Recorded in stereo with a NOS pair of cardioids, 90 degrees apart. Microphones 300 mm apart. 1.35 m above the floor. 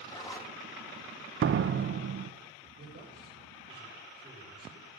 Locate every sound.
0.1 s a zipper: 15° left, 3 m
1.4 s a door slam: 45° right, 0.7 m
2.8 s a man speaking: 35° right, 6.5 m